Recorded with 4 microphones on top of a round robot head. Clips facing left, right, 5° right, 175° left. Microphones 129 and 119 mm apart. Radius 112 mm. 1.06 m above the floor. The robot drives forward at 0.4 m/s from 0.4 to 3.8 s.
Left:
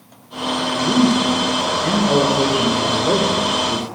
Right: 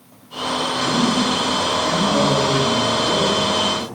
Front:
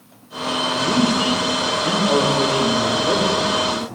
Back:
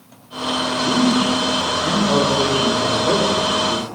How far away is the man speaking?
About 1.8 m.